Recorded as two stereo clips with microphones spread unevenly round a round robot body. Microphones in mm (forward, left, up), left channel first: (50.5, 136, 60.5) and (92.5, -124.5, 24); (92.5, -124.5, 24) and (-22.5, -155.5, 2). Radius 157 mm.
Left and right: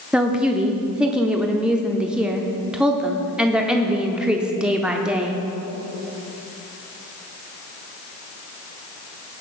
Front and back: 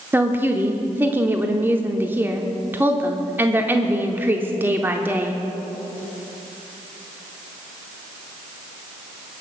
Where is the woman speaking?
145° right, 0.7 m.